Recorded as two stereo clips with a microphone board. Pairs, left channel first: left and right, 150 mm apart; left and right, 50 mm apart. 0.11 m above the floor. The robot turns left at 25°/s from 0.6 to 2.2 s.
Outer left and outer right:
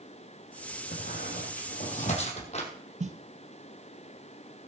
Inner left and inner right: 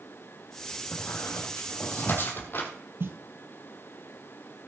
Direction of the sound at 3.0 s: 50° right (ahead or behind).